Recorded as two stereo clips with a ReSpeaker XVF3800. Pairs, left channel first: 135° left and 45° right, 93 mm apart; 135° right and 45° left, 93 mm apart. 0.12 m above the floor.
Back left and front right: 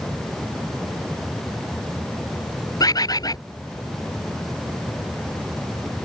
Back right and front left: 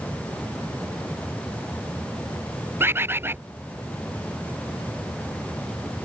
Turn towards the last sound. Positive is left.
turn(degrees=105)